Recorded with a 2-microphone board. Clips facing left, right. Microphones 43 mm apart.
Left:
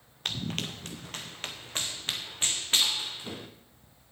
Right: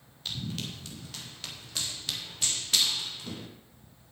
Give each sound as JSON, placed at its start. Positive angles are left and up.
{"t": 0.2, "sound": "running footsteps", "side_deg": 55, "distance_m": 1.3}